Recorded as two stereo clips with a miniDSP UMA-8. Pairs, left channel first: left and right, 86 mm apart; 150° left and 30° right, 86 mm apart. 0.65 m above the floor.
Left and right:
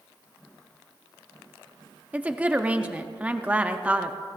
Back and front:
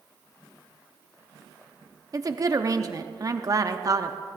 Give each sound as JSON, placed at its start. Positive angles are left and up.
{"t": 2.1, "sound": "a woman speaking", "azimuth_deg": -25, "distance_m": 0.7}